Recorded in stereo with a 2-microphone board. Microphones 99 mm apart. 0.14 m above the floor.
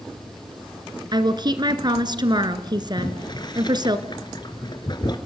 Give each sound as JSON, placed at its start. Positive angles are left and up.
{"t": 1.1, "sound": "a woman speaking", "side_deg": -50, "distance_m": 1.7}
{"t": 3.0, "sound": "boiling", "side_deg": 50, "distance_m": 2.5}